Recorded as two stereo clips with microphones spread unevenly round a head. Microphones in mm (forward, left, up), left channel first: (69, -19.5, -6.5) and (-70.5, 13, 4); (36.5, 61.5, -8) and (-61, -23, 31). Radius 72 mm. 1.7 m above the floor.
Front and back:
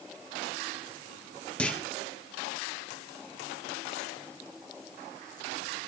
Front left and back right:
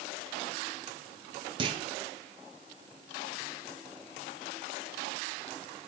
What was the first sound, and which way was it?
A clunk, 95° right.